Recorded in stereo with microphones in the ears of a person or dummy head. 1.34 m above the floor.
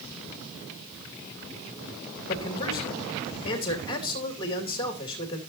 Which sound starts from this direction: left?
A man speaking, at 2.3 s.